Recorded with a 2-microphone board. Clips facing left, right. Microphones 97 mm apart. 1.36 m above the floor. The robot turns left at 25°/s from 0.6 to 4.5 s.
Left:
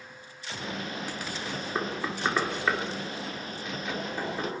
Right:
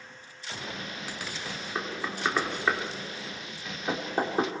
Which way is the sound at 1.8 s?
15° left (ahead or behind).